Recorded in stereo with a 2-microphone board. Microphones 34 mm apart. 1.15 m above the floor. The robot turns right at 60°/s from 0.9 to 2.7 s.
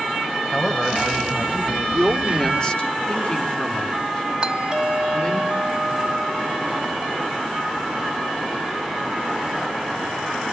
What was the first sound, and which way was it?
A man speaking, 10° left.